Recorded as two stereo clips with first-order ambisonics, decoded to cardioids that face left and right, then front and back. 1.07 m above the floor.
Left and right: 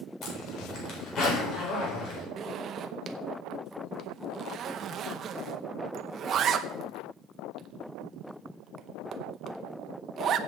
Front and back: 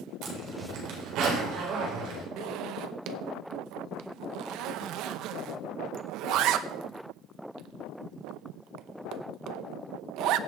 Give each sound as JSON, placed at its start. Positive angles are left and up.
{"t": 0.2, "sound": "a zipper", "azimuth_deg": 145, "distance_m": 4.0}
{"t": 2.4, "sound": "a zipper", "azimuth_deg": -145, "distance_m": 0.7}